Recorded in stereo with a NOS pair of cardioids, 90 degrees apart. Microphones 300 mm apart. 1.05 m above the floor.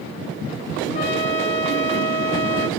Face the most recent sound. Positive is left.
turn(degrees=45)